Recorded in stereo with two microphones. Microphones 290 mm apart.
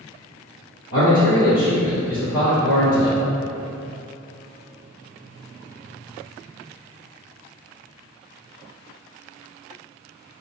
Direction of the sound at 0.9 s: 35° left (ahead or behind).